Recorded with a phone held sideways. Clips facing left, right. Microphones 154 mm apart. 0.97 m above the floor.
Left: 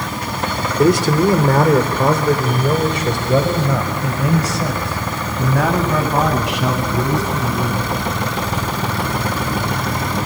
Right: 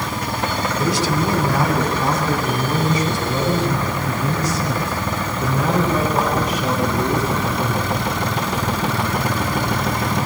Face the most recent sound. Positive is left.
turn(degrees=85)